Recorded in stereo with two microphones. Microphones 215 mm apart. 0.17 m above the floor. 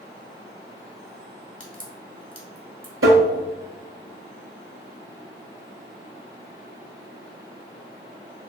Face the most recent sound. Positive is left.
turn(degrees=-75)  # may be behind; listen again after turning